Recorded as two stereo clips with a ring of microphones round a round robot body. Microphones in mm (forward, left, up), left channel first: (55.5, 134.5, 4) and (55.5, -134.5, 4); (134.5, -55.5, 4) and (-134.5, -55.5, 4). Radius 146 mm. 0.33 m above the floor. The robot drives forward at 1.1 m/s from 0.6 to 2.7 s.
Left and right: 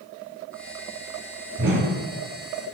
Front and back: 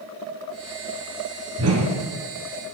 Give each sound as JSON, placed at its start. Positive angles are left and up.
{"t": 1.6, "sound": "a whoosh", "azimuth_deg": -145, "distance_m": 1.8}